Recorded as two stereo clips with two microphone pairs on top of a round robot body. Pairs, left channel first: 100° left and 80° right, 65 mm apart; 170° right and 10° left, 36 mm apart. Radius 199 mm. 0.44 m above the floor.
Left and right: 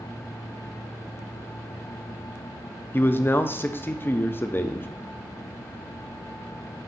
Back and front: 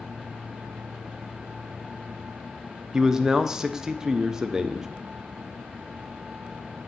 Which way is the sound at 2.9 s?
70° left.